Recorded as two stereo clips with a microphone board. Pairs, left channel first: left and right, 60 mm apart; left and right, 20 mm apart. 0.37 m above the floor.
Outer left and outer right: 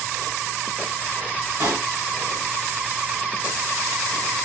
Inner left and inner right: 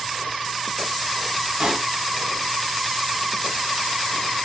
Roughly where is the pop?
Right.